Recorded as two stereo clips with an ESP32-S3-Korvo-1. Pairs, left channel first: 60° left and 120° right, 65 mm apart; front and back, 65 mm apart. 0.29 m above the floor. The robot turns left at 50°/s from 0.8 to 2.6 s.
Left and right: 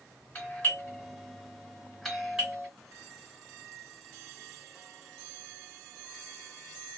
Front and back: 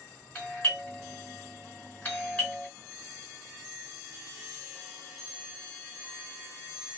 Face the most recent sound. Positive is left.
turn(degrees=-60)